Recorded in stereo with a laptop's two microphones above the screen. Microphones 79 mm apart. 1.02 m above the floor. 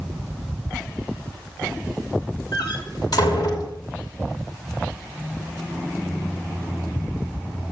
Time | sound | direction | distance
2.5 | a door slam | 65° left (ahead or behind) | 2.5 m